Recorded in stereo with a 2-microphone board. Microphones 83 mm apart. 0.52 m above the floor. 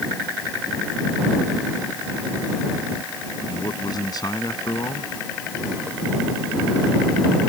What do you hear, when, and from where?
3.5 s a man speaking: 55° left (ahead or behind)